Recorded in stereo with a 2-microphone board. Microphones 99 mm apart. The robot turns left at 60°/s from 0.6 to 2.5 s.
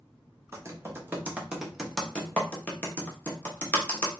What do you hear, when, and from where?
0.5 s typing on a keyboard: 30° right (ahead or behind), 0.9 m; by 4.1 s 20° left (ahead or behind), 0.9 m